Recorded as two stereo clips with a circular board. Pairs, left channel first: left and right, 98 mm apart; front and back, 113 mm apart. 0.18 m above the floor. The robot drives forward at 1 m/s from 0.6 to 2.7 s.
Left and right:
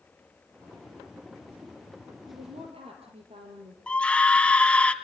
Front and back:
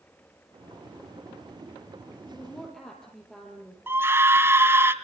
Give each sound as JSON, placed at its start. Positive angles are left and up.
{"t": 2.3, "sound": "a woman speaking", "azimuth_deg": -80, "distance_m": 4.5}
{"t": 3.9, "sound": "a scream", "azimuth_deg": 150, "distance_m": 1.3}